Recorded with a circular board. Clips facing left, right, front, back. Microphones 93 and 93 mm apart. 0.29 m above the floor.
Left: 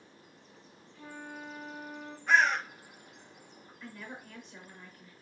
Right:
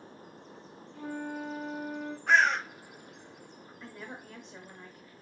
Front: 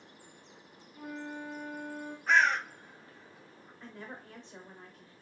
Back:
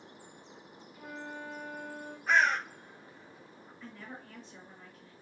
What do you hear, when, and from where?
0.9 s a flute: 55° right, 1.7 m
2.3 s a bird: 90° right, 3 m
3.8 s a woman speaking: 50° right, 1.1 m